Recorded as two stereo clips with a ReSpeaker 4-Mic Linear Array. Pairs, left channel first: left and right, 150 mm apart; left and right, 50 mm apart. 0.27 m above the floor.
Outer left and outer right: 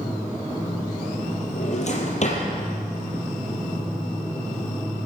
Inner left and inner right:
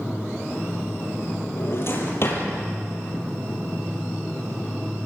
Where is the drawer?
50° left (ahead or behind), 5 m.